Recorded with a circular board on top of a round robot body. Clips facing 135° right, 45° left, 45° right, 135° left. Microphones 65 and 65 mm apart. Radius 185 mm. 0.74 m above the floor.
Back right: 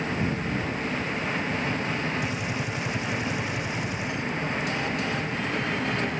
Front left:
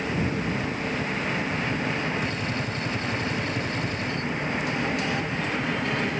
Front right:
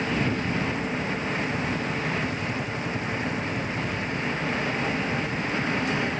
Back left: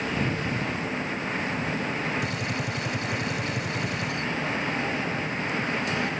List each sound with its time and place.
2.2 s a gunshot: 145° left